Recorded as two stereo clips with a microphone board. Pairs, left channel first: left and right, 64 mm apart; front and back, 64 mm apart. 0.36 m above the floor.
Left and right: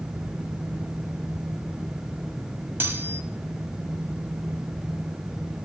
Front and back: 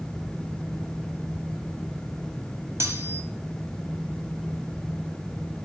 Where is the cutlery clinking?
145° right, 1.1 m.